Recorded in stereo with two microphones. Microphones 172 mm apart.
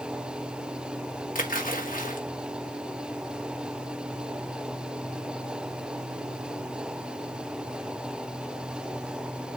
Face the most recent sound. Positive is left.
turn(degrees=55)  # may be behind; listen again after turning